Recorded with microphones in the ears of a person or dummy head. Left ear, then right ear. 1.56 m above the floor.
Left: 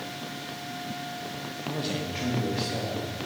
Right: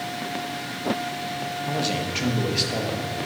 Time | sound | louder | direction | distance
1.7 | a man speaking | right 5 dB | 10° right (ahead or behind) | 1.5 m